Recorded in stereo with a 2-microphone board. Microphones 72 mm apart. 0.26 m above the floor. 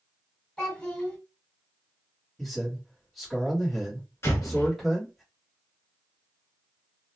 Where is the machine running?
No machine running in this recording.